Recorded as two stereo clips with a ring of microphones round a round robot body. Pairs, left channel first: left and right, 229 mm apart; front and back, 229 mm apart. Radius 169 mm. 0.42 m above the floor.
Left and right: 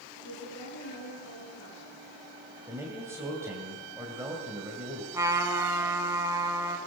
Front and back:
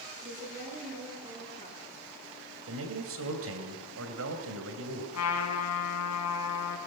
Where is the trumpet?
15° right, 2.5 m.